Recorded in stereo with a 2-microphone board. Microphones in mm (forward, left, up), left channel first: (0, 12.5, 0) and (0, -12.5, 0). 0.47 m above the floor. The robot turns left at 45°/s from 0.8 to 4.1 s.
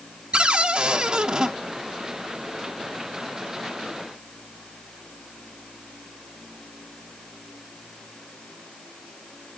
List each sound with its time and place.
0.3 s a cupboard door: 110° right, 0.9 m; by 1.5 s 140° right, 0.9 m